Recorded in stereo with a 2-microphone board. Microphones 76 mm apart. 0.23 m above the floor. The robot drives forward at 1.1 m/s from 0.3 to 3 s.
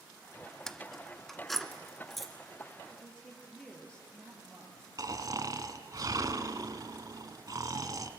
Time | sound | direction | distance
0.7 | keys jangling | 5° left (ahead or behind) | 0.7 m
2.9 | a woman speaking | 10° left (ahead or behind) | 5 m
5.0 | snoring | 50° right (ahead or behind) | 1.1 m